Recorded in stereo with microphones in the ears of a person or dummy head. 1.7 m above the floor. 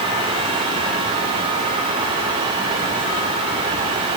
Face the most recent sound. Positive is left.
No sound to turn to.